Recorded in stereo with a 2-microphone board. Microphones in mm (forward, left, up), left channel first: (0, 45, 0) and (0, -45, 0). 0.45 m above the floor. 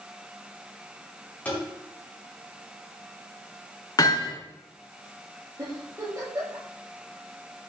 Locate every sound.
1.4 s tapping: 15° left (ahead or behind), 5 m
4.0 s hammering: 45° left (ahead or behind), 3.5 m
5.6 s a giggle: 40° right (ahead or behind), 6 m